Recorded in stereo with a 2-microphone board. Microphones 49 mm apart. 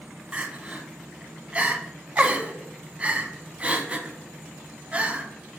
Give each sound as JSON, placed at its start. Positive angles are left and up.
{"t": 0.3, "sound": "crying", "side_deg": -25, "distance_m": 0.6}